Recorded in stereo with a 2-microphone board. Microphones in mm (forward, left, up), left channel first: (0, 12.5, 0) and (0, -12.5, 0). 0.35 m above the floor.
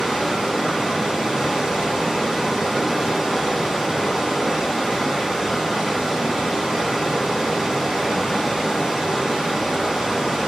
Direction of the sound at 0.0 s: 20° right (ahead or behind).